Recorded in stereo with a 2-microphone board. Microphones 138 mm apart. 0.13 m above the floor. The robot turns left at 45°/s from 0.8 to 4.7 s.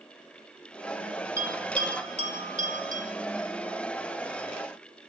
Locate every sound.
1.4 s a bell: 20° right (ahead or behind), 3.5 m; by 3.0 s 75° right (ahead or behind), 3.5 m